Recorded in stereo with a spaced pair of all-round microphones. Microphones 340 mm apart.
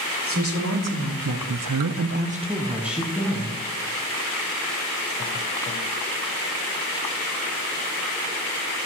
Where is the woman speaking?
40° right (ahead or behind), 1.4 m; by 3.6 s 5° left (ahead or behind), 1.6 m.